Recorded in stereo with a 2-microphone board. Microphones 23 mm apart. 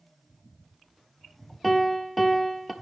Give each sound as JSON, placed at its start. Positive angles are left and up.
{"t": 1.6, "sound": "a piano", "side_deg": 0, "distance_m": 0.7}